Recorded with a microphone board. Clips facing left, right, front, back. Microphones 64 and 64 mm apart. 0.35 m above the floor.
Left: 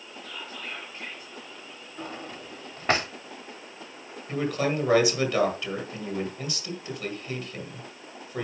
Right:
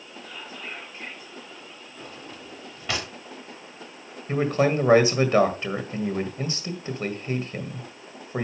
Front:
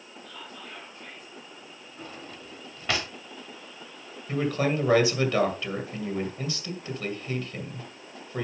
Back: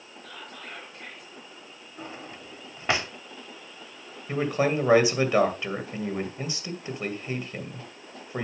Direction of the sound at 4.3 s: 125° right.